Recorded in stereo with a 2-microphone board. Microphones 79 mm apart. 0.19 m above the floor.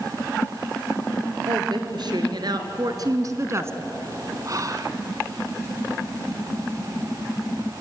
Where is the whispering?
45° right (ahead or behind), 1.8 m.